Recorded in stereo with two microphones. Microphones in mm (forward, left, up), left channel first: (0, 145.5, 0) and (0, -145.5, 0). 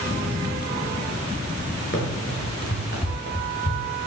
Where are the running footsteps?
40° left (ahead or behind), 6.5 m; by 4.0 s 35° left (ahead or behind), 5 m.